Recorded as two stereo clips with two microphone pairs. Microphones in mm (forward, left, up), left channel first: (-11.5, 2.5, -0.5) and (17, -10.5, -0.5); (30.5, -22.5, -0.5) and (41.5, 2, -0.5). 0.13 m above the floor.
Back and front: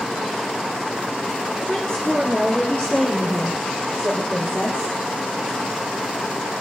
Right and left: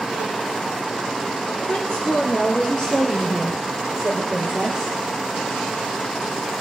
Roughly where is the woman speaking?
Behind right.